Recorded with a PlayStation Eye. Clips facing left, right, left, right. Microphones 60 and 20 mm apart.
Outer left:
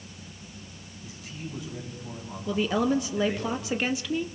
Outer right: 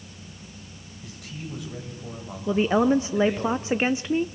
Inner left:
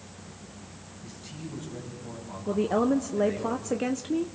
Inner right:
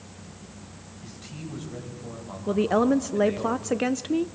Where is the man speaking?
75° right (ahead or behind), 8 m; by 3.5 s 80° right, 7 m.